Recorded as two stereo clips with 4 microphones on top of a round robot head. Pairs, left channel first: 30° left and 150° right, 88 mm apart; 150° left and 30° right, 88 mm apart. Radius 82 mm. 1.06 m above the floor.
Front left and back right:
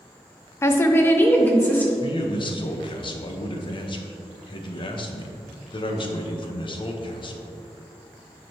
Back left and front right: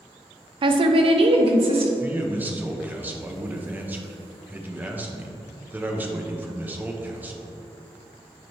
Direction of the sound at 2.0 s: 35° left.